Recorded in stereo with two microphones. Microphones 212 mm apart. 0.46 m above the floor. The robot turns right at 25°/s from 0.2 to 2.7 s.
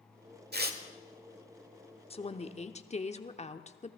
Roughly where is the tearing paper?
Right.